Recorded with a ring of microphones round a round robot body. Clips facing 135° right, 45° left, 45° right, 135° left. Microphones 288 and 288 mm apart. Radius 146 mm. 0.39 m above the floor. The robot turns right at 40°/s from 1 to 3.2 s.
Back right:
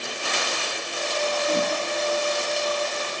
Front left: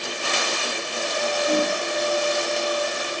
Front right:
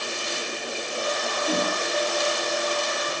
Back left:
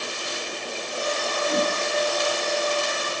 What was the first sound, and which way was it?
A whoosh, 25° right.